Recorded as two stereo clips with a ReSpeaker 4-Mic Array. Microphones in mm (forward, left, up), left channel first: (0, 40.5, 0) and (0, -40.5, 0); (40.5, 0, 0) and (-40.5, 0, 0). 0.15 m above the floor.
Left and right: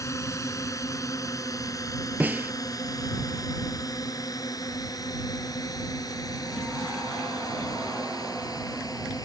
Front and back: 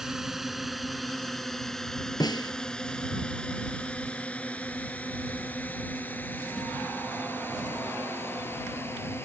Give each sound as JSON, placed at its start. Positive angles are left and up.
{"t": 0.0, "sound": "a drone", "azimuth_deg": 100}
{"t": 2.2, "sound": "a snare drum", "azimuth_deg": -20}